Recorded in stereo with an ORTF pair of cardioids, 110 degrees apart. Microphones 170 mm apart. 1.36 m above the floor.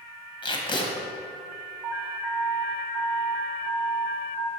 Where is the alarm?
5° right, 0.9 m.